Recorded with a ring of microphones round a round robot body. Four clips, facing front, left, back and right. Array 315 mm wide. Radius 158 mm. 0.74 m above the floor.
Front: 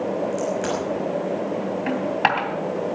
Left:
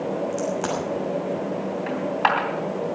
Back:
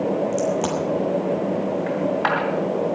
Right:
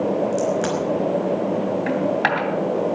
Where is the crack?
150° right, 5.5 m.